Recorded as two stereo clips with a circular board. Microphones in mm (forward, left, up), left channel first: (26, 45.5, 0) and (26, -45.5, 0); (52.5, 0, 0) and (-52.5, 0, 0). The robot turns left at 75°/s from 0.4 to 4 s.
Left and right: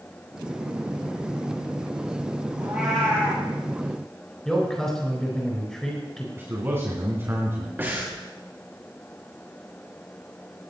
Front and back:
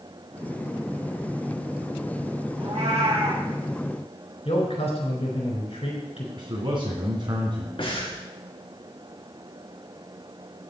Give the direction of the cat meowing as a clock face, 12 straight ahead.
5 o'clock.